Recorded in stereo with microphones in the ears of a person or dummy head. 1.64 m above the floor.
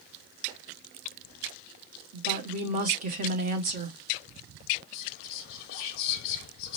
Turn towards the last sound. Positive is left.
turn(degrees=55)  # may be behind; listen again after turning